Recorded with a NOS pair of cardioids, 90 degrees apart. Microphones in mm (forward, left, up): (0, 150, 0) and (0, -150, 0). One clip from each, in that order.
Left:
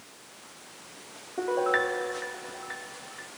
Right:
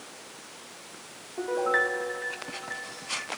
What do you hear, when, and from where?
1.4 s a piano: 15° left, 0.7 m